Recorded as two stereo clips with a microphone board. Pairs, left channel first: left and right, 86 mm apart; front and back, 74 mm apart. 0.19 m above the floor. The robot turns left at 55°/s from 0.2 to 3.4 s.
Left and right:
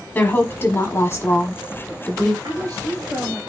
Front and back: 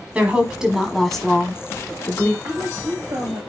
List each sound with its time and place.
0.1 s a woman speaking: 130° left, 1.4 m; by 2.3 s 15° left, 1.4 m
2.4 s a woman speaking: 115° right, 2.5 m; by 3.4 s 165° right, 2.5 m